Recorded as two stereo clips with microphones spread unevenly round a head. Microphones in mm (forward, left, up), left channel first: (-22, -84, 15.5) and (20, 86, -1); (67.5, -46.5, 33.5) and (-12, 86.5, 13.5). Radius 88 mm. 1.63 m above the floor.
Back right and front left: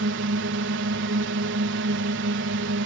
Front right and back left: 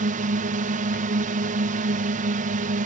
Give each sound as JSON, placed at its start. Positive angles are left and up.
{"t": 0.0, "sound": "a drone", "azimuth_deg": 90}